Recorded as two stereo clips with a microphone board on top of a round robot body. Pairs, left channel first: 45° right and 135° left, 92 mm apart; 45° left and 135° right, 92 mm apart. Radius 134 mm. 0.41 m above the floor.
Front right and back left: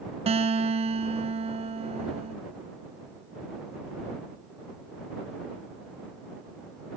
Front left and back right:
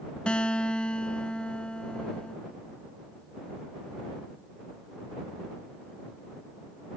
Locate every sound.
0.3 s a guitar: 125° left